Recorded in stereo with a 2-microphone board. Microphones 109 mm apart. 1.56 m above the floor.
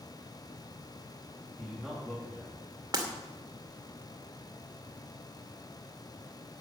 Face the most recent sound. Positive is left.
turn(degrees=-35)  # may be behind; listen again after turning